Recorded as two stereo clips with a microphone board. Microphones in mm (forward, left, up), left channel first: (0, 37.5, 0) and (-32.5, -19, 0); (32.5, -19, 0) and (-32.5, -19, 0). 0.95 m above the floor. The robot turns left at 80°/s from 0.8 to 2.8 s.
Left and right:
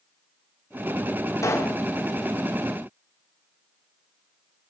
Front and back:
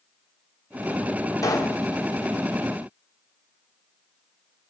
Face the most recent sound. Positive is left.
turn(degrees=-80)